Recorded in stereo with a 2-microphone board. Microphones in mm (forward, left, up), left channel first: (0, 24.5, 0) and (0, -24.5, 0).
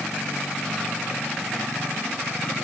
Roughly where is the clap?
No clap in this recording.